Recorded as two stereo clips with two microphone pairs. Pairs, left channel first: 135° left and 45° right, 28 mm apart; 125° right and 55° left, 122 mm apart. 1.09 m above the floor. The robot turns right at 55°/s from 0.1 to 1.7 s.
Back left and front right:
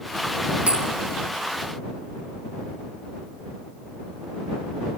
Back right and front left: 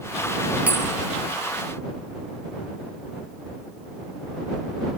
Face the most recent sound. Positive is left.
turn(degrees=35)